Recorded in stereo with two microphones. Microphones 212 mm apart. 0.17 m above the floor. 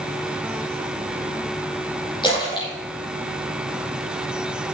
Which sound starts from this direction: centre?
A splash, at 2.2 s.